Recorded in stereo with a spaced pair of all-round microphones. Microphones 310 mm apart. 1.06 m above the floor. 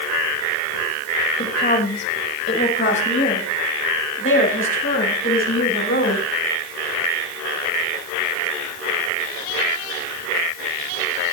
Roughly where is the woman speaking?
Left.